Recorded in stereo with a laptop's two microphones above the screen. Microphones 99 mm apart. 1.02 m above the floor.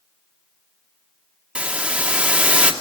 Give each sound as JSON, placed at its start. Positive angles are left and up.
{"t": 1.6, "sound": "a hiss", "side_deg": -10, "distance_m": 1.8}